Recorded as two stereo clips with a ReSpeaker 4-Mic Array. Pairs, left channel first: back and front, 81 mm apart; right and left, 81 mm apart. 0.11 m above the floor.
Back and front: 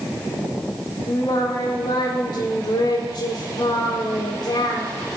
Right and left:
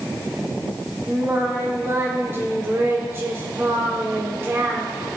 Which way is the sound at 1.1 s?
150° left.